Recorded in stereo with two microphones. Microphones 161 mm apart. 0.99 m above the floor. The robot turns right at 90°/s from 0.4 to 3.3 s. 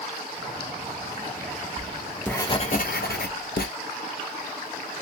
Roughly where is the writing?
Ahead right.